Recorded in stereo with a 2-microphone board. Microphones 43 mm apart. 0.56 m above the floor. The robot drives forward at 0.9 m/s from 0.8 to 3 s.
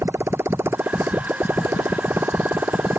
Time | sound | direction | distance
0.0 | a motorcycle | 65° right (ahead or behind) | ?